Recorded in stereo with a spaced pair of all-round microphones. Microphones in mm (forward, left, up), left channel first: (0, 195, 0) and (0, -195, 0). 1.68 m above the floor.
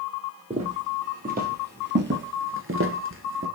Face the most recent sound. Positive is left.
turn(degrees=-30)  # may be behind; listen again after turning